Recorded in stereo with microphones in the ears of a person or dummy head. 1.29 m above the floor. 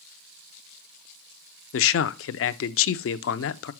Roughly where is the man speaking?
Left.